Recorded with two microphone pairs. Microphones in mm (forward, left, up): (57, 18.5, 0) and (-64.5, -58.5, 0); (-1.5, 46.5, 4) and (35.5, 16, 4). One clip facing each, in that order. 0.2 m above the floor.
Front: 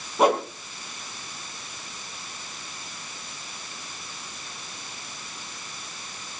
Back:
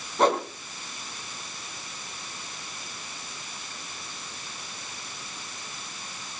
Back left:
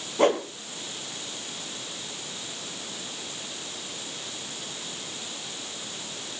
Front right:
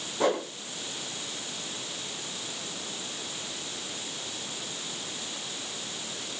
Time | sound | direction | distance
0.2 | a whoosh | 115° left | 3 m